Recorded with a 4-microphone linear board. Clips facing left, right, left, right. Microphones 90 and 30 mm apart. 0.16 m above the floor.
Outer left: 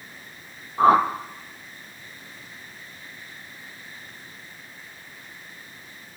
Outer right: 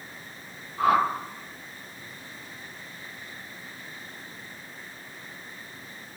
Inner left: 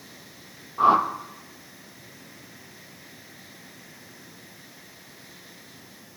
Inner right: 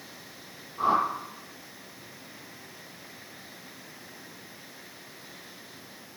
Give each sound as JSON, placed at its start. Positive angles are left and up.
{"t": 0.8, "sound": "a whoosh", "side_deg": 35, "distance_m": 0.7}